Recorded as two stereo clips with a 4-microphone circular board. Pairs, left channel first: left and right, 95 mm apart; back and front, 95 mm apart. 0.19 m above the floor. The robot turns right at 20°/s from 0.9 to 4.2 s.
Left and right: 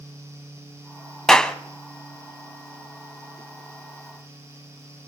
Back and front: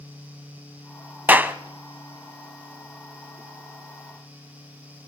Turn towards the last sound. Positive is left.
turn(degrees=75)